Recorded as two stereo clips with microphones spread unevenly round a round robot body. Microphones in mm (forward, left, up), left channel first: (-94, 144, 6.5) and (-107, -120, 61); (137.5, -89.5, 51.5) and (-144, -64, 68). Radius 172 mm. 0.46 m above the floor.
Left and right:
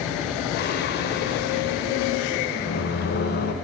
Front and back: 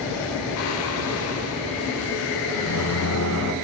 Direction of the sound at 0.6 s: 35° left.